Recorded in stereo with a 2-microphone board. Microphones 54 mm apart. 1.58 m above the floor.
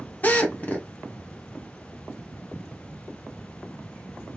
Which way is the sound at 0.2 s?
30° left (ahead or behind).